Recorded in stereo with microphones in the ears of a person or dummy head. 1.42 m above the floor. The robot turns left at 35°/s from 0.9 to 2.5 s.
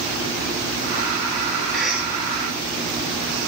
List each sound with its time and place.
1.7 s a cough: 5° left (ahead or behind), 3 m; by 2.1 s 10° right (ahead or behind), 3 m